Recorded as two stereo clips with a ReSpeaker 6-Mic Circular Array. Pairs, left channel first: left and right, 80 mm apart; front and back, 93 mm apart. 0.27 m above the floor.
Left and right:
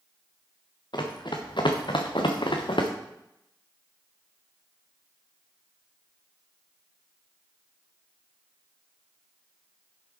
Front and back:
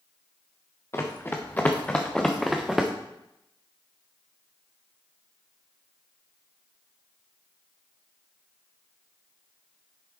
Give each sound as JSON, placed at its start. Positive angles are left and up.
{"t": 0.9, "sound": "running footsteps", "azimuth_deg": 60, "distance_m": 2.0}